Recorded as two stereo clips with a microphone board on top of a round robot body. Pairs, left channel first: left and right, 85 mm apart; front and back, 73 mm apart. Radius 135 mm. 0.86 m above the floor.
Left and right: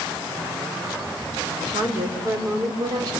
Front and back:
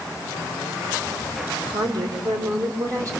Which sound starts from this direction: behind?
A woman speaking, at 1.5 s.